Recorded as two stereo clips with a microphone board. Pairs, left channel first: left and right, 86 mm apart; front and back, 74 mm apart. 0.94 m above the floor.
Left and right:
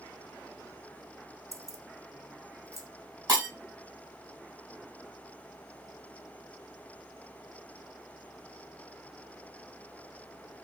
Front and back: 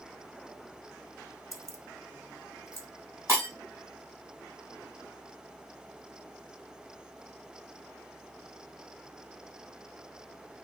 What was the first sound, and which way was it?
Keys jangling, 140° right.